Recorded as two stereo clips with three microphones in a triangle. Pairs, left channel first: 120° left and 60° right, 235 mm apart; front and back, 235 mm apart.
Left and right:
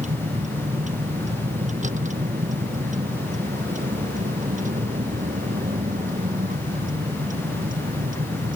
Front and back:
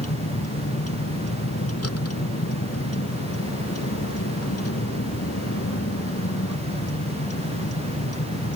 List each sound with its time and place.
0.0 s a vehicle: straight ahead; by 8.6 s 5° right